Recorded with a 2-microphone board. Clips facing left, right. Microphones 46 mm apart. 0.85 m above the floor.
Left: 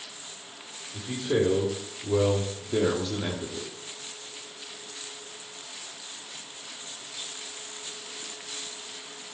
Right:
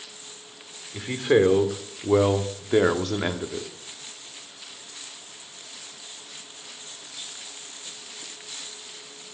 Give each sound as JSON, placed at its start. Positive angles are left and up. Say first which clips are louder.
{"t": 0.9, "sound": "a man speaking", "louder": "right 6 dB", "side_deg": -70, "distance_m": 2.0}